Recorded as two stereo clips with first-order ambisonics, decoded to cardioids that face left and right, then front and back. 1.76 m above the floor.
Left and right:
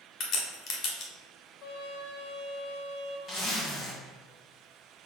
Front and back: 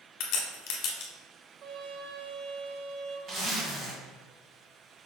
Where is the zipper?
140° left, 1.7 m.